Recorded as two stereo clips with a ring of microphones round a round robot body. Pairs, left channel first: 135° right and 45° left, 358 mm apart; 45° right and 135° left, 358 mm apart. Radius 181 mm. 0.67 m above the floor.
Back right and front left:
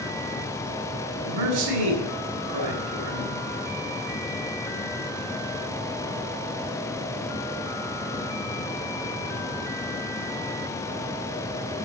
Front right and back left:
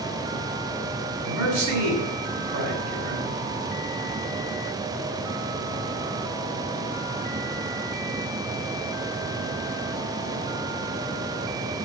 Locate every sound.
1.2 s a man speaking: 90° left, 5.5 m